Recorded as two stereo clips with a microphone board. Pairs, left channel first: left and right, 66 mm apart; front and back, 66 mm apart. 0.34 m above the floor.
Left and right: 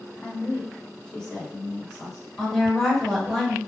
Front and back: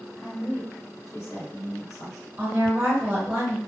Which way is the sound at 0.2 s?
50° left.